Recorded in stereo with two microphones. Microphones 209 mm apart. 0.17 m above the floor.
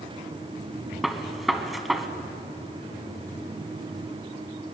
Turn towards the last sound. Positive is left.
turn(degrees=0)  # may be behind; listen again after turning